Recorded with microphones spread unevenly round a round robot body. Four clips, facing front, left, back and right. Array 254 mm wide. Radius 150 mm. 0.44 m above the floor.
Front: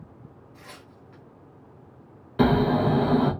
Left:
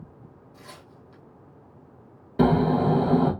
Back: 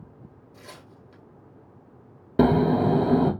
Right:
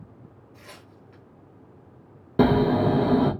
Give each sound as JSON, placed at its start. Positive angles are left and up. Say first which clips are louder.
{"t": 0.5, "sound": "tearing paper", "louder": "left 1 dB, back 2 dB", "azimuth_deg": -150, "distance_m": 1.4}
{"t": 2.4, "sound": "snoring", "louder": "right 1 dB, back 1 dB", "azimuth_deg": -140, "distance_m": 1.0}